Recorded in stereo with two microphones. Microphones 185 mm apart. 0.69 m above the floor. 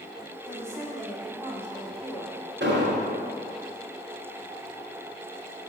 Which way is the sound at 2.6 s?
75° right (ahead or behind).